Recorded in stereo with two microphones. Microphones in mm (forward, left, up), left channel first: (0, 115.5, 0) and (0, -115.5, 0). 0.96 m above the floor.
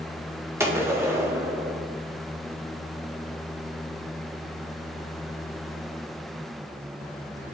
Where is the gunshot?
10° right (ahead or behind), 0.5 m.